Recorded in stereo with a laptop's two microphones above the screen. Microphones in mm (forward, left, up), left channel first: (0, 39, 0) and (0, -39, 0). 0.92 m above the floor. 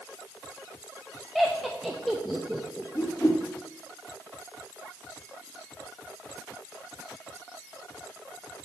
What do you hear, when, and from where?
1.4 s laughter: centre (ahead or behind), 0.8 m
3.0 s a whoosh: 40° left (ahead or behind), 1.2 m